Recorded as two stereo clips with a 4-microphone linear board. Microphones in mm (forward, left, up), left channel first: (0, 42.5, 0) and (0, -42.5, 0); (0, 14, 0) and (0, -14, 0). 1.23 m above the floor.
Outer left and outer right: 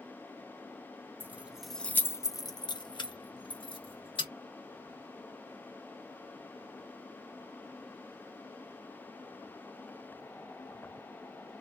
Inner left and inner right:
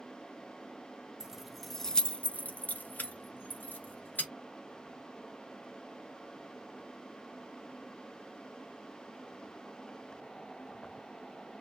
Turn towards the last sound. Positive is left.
turn(degrees=80)